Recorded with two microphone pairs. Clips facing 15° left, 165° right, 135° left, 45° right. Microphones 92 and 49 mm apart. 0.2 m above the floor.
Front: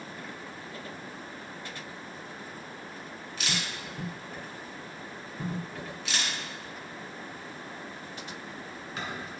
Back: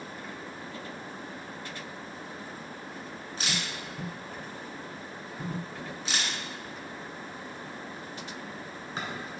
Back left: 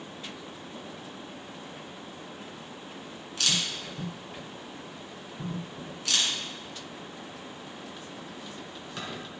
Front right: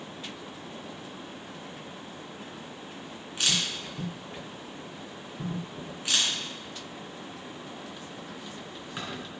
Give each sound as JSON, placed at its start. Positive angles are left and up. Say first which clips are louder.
{"t": 3.4, "sound": "a camera shutter", "louder": "even, front right 1 dB", "azimuth_deg": -115, "distance_m": 2.0}